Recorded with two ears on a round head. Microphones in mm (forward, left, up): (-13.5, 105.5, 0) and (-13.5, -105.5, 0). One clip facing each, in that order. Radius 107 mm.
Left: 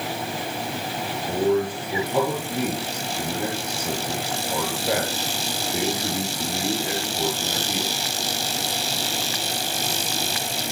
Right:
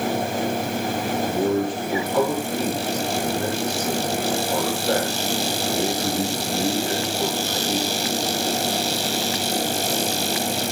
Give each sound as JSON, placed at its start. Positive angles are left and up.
{"t": 1.3, "sound": "a man speaking", "side_deg": 10, "distance_m": 8.0}